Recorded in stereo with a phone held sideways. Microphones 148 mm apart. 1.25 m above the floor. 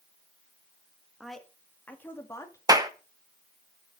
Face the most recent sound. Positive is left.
turn(degrees=-25)  # may be behind; listen again after turning